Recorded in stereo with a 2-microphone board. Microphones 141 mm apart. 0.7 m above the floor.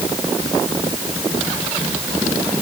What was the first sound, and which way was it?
Only background noise.